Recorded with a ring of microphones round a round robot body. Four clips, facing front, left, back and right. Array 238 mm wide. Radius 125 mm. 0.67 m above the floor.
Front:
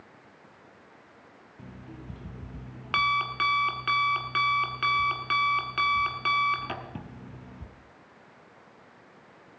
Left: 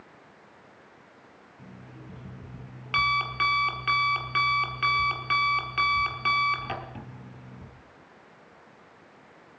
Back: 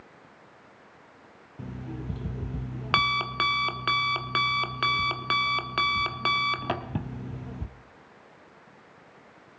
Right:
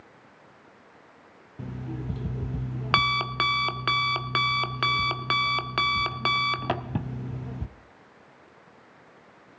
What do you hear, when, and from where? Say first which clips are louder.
1.6 s an alarm clock: right 12 dB, back 7 dB; 120° right, 0.7 m